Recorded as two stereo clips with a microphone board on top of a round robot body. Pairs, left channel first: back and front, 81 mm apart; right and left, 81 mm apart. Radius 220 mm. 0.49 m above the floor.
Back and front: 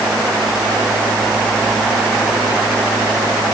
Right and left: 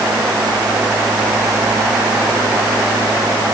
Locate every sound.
Only background noise.